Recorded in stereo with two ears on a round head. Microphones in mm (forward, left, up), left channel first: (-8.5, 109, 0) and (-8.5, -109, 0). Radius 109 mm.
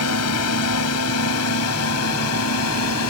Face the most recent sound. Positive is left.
turn(degrees=70)  # may be behind; listen again after turning